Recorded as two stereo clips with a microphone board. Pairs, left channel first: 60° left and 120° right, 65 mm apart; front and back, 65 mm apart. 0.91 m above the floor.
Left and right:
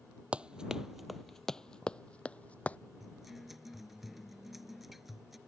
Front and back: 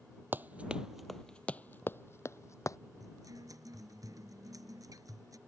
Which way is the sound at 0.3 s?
175° right.